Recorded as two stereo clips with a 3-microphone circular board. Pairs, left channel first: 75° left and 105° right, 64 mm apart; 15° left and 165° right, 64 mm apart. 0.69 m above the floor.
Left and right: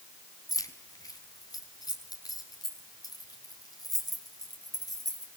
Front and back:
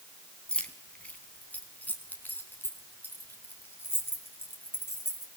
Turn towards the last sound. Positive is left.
turn(degrees=65)